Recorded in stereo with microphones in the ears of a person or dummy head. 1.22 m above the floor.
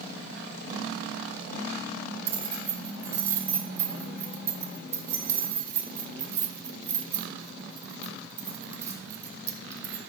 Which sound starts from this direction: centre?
Keys jangling, at 2.3 s.